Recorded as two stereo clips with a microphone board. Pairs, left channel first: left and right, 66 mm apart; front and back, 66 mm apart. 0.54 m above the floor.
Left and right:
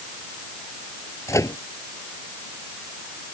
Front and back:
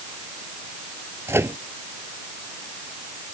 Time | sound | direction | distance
1.3 | a microwave | 130° left | ?